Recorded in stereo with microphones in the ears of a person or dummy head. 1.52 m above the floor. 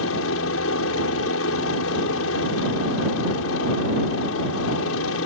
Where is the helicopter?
75° left (ahead or behind).